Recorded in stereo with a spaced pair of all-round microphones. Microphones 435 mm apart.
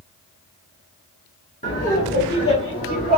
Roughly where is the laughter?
Centre.